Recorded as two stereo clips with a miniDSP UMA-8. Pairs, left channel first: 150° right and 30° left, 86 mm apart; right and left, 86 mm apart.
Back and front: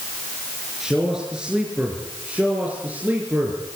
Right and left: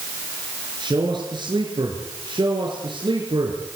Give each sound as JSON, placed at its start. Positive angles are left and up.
{"t": 0.8, "sound": "a man speaking", "azimuth_deg": 115, "distance_m": 6.0}